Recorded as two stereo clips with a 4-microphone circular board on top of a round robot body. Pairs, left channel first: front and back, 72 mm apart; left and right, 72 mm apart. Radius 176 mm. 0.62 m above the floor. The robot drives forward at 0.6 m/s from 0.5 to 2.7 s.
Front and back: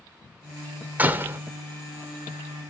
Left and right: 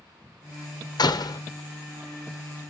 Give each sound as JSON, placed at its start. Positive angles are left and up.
{"t": 1.0, "sound": "a door slam", "azimuth_deg": 110, "distance_m": 1.2}